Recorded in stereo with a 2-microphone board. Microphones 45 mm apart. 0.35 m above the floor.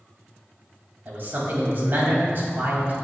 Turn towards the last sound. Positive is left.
turn(degrees=-50)  # may be behind; listen again after turning